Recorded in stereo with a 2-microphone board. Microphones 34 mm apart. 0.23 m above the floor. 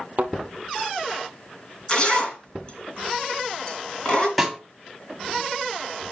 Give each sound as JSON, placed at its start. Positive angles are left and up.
{"t": 0.2, "sound": "a thud", "side_deg": -50, "distance_m": 0.8}
{"t": 1.9, "sound": "a zipper", "side_deg": 30, "distance_m": 2.5}
{"t": 4.4, "sound": "a snare drum", "side_deg": 0, "distance_m": 1.3}